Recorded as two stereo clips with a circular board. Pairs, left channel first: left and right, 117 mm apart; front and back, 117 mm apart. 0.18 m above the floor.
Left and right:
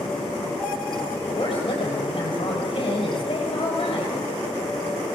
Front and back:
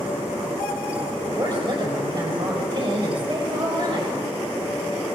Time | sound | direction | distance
1.3 | a woman speaking | 130° left | 5.5 m